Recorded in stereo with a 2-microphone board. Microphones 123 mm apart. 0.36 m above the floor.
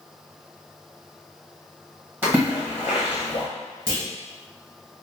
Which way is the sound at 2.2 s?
20° right (ahead or behind).